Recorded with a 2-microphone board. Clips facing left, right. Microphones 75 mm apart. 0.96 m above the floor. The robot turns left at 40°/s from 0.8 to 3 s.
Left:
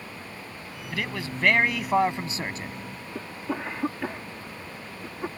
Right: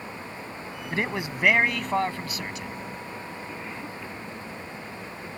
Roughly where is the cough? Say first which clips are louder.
Left 4 dB; left.